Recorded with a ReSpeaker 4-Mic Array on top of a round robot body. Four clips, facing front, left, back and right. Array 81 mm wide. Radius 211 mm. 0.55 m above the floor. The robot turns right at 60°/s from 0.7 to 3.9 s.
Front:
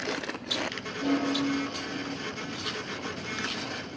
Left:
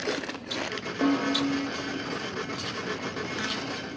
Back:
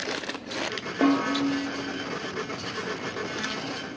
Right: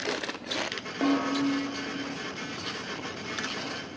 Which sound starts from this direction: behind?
A snare drum, at 1.0 s.